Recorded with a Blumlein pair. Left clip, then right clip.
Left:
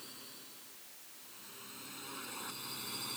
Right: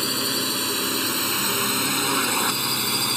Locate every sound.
0.0 s a drone: 45° right; by 3.2 s 50° right